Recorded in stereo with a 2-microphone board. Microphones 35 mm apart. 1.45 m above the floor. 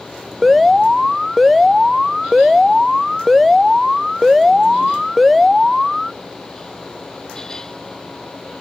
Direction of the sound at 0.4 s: Centre (ahead or behind).